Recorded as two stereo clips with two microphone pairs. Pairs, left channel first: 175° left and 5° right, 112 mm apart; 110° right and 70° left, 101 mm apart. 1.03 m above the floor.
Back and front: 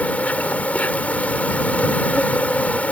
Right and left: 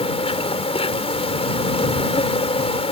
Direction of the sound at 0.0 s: 105° right.